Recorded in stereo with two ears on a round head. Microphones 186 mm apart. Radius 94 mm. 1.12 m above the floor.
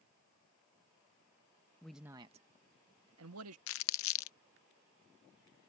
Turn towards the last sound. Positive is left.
turn(degrees=70)  # may be behind; listen again after turning